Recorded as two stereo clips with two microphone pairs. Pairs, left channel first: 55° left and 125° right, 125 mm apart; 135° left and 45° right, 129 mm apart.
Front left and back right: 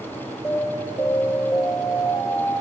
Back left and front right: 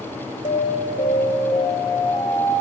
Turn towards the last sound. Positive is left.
turn(degrees=120)